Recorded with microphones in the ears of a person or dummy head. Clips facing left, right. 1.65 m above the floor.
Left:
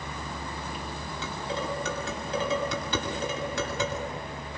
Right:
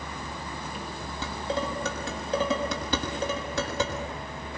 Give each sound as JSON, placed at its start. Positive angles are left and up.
{"t": 1.2, "sound": "dishes clattering", "side_deg": -35, "distance_m": 6.5}